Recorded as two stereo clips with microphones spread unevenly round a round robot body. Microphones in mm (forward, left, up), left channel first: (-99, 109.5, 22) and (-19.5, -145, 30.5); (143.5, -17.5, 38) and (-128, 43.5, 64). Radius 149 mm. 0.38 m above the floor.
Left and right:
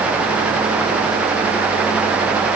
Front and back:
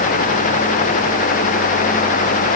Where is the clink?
I don't hear a clink.